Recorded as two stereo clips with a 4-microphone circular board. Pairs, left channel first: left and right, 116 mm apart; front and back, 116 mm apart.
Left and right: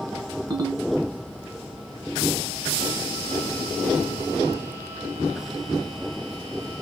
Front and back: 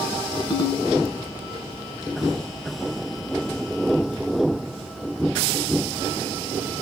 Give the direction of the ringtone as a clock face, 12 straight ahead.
1 o'clock.